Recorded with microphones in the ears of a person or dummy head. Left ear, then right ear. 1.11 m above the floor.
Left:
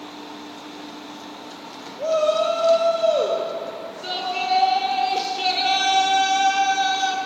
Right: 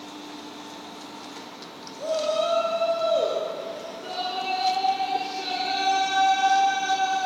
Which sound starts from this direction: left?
A shout, at 2.0 s.